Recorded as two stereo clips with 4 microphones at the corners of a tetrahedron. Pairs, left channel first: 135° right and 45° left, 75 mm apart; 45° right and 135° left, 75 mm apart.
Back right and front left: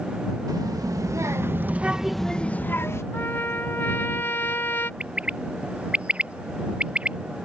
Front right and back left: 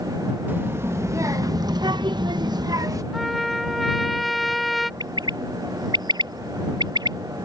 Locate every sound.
0.5 s a child speaking: 75° left; by 3.0 s 175° left
3.1 s a trumpet: 135° right
5.0 s a bird: 120° left